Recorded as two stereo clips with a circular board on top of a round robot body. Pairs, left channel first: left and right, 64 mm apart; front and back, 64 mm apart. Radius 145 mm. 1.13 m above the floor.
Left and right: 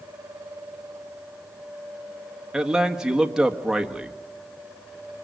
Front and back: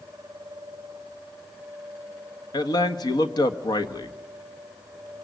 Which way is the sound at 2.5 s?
10° right.